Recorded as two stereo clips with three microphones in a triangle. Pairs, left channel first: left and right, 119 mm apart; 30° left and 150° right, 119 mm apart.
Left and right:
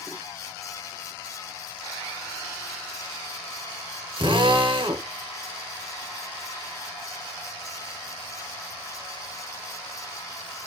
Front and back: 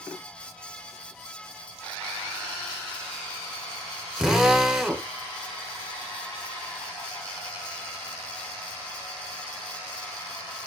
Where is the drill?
65° right, 0.7 m.